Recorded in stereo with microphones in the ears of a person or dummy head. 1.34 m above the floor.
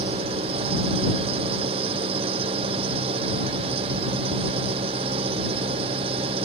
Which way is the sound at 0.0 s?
30° right (ahead or behind).